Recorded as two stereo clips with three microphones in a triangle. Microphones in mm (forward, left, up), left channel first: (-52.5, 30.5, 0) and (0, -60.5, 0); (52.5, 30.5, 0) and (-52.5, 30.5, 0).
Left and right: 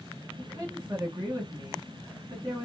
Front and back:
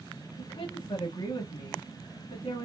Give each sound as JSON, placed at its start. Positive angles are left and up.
{"t": 0.4, "sound": "a woman speaking", "azimuth_deg": -10, "distance_m": 2.5}